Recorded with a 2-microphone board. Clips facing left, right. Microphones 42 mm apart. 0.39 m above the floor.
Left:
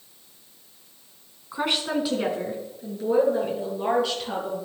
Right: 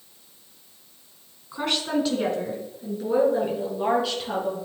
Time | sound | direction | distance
1.5 | a woman speaking | 10° left (ahead or behind) | 3.5 m